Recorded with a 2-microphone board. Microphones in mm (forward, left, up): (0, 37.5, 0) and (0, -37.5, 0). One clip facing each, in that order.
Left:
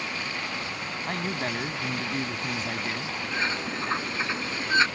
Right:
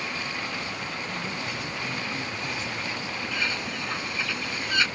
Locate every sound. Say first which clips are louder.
1.1 s a man speaking: left 3 dB; 55° left (ahead or behind)
3.3 s a bird: left 3 dB; 30° left (ahead or behind)